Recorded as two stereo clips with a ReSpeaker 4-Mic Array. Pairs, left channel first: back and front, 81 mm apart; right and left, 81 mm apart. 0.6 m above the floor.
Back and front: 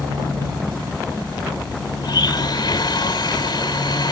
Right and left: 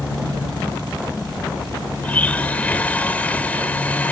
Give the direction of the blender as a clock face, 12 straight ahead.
5 o'clock.